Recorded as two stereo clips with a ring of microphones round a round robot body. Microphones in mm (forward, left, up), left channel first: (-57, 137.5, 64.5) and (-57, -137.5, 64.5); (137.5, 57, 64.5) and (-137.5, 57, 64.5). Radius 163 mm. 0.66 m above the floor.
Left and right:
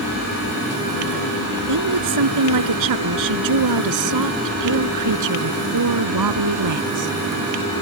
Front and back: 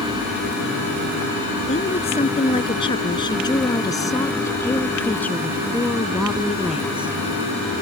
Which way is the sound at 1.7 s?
70° right.